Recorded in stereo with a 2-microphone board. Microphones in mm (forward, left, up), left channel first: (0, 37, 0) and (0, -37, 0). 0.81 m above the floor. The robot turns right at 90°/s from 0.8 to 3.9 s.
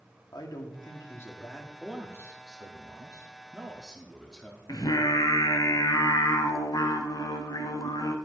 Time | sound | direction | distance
0.3 | a man speaking | 105° left | 1.7 m
1.8 | a man speaking | straight behind | 1.3 m
4.7 | singing | 60° left (ahead or behind) | 1.1 m